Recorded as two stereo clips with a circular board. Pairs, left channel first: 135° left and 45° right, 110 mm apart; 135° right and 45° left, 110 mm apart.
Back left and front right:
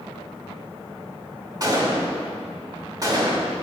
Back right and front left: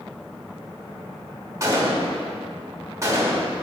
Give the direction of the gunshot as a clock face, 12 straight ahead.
12 o'clock.